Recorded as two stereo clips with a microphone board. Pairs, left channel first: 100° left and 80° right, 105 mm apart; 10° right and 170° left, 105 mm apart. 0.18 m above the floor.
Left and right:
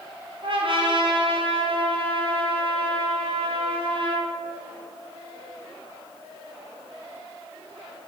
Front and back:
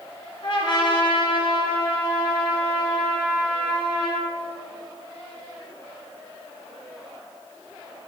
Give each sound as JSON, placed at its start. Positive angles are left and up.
{"t": 0.4, "sound": "a trumpet", "azimuth_deg": -50, "distance_m": 2.5}